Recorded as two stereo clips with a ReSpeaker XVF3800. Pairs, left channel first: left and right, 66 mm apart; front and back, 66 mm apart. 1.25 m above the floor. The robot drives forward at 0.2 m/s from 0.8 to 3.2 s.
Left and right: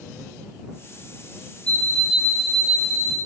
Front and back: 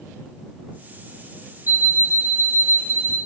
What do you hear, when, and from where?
1.7 s an alarm clock: 160° left, 0.6 m; by 3.2 s 170° left, 0.8 m